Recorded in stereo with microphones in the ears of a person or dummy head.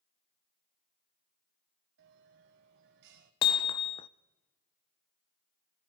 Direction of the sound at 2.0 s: 60° right (ahead or behind).